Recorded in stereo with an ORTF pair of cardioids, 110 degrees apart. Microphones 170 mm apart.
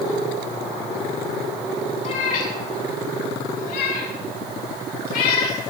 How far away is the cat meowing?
About 5 m.